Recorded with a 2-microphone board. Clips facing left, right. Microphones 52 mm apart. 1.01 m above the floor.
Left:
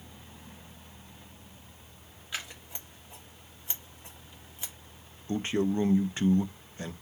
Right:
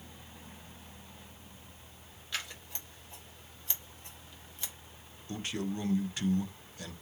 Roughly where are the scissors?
Centre.